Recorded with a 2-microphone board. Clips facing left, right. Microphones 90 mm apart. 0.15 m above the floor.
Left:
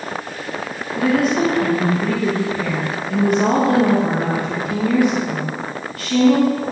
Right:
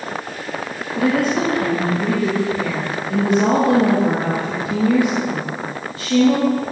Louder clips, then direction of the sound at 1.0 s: Left 1 dB; 30° right (ahead or behind).